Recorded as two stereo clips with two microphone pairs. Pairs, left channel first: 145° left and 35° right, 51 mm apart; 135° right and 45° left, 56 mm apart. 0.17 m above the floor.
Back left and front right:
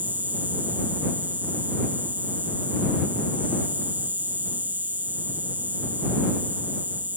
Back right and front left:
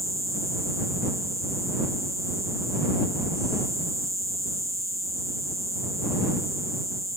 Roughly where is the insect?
Ahead.